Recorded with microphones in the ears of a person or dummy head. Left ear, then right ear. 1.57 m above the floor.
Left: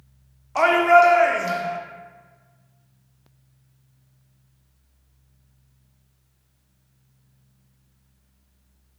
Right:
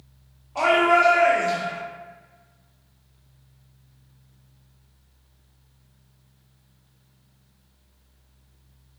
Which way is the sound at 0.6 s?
45° left (ahead or behind).